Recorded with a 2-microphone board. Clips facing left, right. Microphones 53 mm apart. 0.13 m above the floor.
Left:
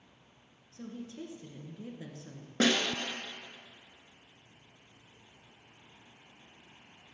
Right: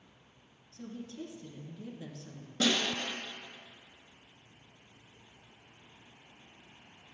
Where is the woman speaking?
25° left (ahead or behind), 1.6 m.